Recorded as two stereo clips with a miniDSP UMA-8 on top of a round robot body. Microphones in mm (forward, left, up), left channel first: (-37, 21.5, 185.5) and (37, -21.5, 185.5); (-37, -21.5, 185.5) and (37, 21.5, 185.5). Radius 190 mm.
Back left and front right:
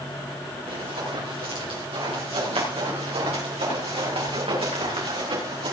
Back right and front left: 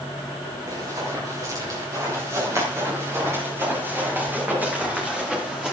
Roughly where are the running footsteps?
Ahead.